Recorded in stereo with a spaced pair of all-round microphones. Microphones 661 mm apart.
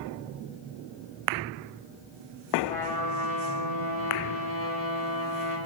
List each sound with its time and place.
2.6 s a trumpet: 45° right (ahead or behind), 4.5 m